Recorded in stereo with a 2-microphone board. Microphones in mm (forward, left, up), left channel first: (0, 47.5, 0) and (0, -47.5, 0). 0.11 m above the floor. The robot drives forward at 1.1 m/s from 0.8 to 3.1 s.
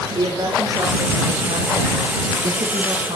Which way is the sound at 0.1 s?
40° right (ahead or behind).